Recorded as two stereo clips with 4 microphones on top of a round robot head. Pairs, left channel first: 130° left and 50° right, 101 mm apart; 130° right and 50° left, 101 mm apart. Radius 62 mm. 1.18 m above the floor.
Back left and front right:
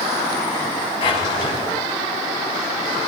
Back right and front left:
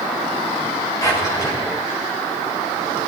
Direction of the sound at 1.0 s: 170° left.